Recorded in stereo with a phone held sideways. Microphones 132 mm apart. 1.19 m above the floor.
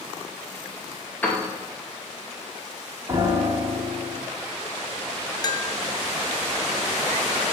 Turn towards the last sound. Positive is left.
turn(degrees=30)  # may be behind; listen again after turning